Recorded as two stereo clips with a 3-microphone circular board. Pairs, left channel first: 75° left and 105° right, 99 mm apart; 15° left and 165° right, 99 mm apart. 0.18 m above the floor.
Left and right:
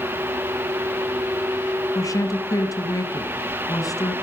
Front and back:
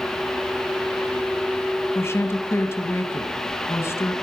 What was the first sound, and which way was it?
A woman speaking, 60° left.